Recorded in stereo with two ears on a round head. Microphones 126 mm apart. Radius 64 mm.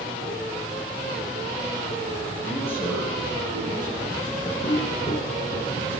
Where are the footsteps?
40° left (ahead or behind), 3 m; by 5.8 s 50° left (ahead or behind), 2.5 m.